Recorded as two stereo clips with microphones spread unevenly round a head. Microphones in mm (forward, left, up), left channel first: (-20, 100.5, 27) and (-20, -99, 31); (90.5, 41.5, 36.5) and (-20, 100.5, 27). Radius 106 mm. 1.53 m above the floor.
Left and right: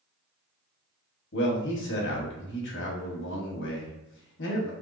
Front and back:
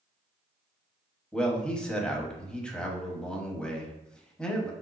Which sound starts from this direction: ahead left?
A man speaking, at 1.3 s.